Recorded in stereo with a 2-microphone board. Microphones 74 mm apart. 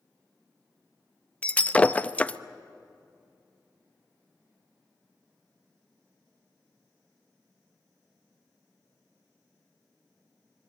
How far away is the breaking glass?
About 0.5 m.